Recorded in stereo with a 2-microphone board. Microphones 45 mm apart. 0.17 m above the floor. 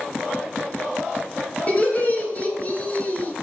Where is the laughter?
35° left (ahead or behind), 2.0 m.